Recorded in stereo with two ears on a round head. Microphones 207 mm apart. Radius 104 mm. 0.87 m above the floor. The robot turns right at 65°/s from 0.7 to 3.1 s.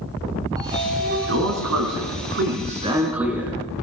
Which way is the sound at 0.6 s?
160° right.